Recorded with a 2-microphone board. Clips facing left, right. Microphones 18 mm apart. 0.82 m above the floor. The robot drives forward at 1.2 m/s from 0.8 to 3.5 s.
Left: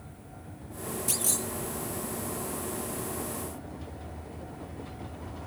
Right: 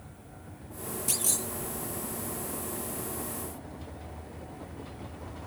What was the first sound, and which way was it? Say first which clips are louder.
A clunk: even; centre (ahead or behind).